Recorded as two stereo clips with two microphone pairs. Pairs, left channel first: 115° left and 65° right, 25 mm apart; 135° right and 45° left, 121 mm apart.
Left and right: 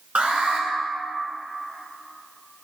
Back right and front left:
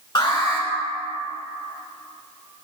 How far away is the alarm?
About 2 m.